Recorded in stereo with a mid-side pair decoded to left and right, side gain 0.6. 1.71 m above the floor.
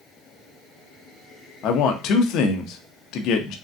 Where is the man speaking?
65° left, 0.8 m.